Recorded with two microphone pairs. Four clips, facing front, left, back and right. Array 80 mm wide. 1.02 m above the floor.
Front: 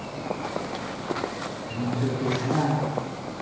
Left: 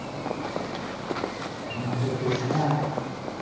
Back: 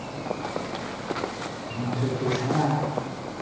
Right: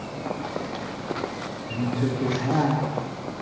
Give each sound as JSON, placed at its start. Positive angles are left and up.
{"t": 1.7, "sound": "a woman speaking", "azimuth_deg": -110, "distance_m": 1.1}